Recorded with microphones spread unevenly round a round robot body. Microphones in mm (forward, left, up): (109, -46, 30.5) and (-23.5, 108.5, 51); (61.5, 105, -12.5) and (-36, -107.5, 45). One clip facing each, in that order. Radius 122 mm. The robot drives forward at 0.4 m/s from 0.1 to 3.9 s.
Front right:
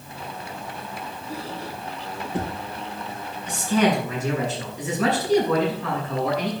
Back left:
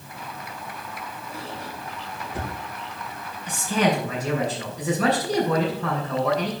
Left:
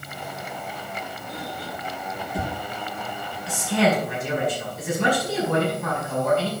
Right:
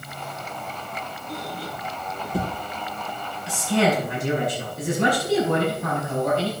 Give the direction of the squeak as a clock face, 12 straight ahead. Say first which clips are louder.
Front right 4 dB, right 3 dB; 4 o'clock.